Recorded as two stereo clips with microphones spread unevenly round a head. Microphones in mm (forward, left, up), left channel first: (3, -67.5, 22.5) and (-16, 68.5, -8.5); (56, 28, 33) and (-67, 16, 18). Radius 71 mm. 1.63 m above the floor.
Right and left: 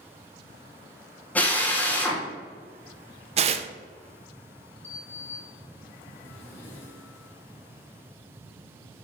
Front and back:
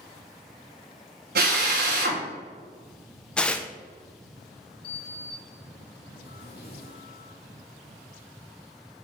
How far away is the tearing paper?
About 0.6 m.